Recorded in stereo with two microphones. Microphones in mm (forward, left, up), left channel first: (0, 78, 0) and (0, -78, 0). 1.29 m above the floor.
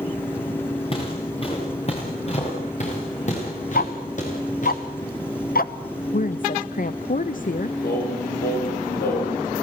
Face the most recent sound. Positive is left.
turn(degrees=80)